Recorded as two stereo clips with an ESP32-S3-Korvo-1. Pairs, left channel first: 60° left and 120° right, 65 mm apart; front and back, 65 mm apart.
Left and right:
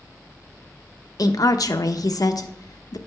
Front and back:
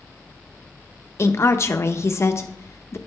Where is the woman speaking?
45° left, 0.8 m.